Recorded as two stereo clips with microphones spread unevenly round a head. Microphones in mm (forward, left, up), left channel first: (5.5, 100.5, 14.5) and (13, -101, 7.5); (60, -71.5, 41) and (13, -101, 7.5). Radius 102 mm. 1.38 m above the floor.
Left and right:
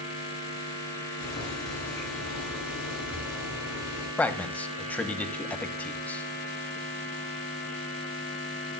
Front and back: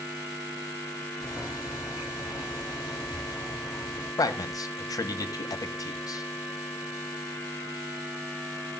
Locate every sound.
1.2 s boiling: 95° left, 8 m
4.2 s a man speaking: 10° left, 1.7 m